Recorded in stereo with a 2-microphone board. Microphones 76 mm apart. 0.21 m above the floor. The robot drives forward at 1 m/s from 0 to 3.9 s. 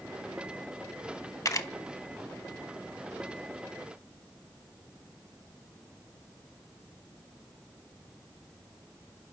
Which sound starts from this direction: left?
A camera shutter, at 1.4 s.